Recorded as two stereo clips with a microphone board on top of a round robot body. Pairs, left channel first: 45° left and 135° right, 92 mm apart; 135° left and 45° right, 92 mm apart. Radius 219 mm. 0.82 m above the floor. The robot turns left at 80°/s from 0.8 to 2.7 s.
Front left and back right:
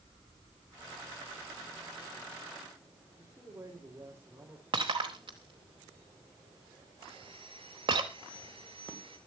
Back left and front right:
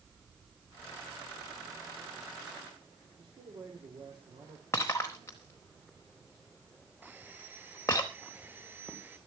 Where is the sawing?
110° right, 6 m.